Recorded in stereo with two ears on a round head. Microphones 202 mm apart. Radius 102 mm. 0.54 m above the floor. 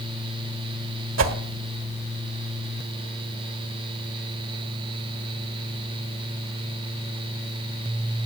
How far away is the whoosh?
About 1.5 m.